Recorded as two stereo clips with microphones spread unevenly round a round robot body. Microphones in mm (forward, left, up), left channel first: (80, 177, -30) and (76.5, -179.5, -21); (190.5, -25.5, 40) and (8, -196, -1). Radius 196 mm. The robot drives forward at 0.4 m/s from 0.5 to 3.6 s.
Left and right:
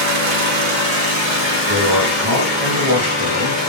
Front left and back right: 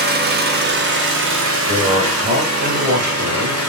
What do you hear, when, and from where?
0.0 s an engine running: 125° right, 0.8 m; by 3.7 s 165° right, 1.7 m
1.7 s a man speaking: 105° right, 1.0 m; by 3.6 s 150° right, 1.4 m